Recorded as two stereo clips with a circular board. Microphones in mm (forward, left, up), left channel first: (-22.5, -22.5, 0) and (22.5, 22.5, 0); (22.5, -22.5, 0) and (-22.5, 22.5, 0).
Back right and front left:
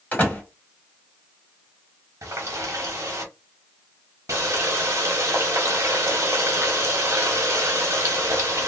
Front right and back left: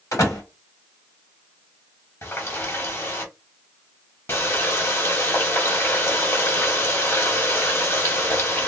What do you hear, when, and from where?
0.1 s a door slam: 70° right, 1.3 m
2.2 s a running tap: 5° left, 0.9 m